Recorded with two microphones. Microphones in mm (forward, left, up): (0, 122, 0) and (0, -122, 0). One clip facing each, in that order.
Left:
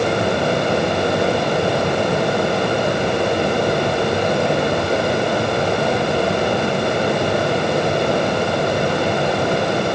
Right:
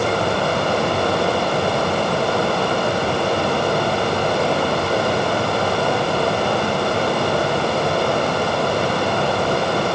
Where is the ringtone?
No ringtone in this recording.